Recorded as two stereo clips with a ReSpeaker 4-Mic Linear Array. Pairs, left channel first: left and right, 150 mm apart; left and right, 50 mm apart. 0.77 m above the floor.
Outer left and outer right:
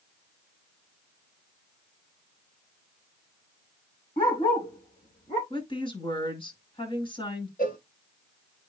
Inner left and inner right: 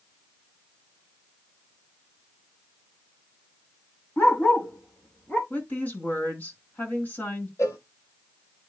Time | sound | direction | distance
4.2 | a dog barking | 35° left (ahead or behind) | 2.5 m
5.5 | a woman speaking | 35° left (ahead or behind) | 5 m
7.6 | a cowbell | 65° left (ahead or behind) | 1.5 m